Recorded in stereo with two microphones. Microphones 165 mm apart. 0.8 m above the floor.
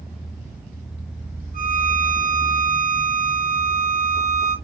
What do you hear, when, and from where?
1.5 s a violin: 55° right (ahead or behind), 1.5 m